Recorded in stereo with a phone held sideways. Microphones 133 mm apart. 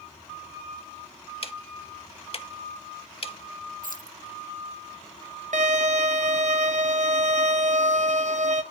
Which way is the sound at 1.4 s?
45° left (ahead or behind).